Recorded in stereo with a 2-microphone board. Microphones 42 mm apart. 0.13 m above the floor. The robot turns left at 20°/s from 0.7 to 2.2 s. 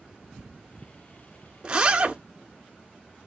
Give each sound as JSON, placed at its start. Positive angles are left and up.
{"t": 1.6, "sound": "a zipper", "side_deg": -25, "distance_m": 0.7}